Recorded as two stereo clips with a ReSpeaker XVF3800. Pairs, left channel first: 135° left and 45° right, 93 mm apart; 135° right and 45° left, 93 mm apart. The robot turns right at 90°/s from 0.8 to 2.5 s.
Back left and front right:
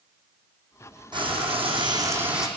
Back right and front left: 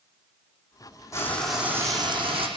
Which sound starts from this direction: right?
Frying, at 1.1 s.